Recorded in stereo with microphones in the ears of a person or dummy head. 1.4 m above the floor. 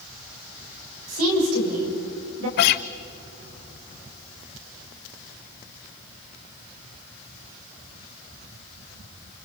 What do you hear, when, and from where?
1.1 s a woman speaking: 90° right, 6.5 m; by 2.5 s 80° right, 7 m
2.6 s a guitar: 50° left (ahead or behind), 0.6 m